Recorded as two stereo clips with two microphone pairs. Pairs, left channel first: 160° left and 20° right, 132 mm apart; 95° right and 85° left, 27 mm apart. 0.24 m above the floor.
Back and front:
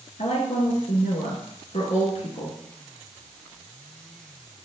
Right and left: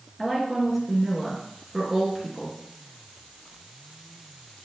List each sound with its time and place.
0.2 s a woman speaking: 175° left, 3 m